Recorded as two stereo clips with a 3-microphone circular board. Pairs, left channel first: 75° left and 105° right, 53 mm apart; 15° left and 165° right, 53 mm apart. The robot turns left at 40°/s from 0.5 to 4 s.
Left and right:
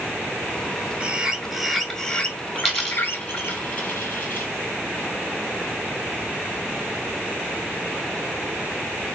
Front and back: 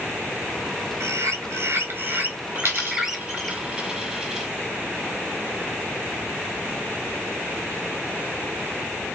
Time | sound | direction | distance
1.0 | a bird | 165° right | 0.6 m
2.5 | a dropped coin | 175° left | 1.3 m